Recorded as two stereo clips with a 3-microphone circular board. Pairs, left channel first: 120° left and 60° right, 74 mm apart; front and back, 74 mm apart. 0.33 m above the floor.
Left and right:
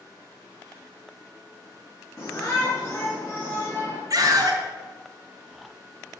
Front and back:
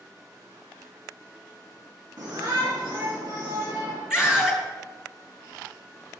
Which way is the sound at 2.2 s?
165° left.